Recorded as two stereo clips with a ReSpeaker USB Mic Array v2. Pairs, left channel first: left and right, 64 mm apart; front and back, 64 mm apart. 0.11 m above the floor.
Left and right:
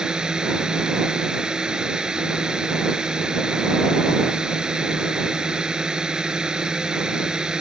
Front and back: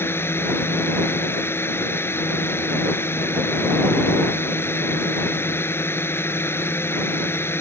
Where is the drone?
20° right.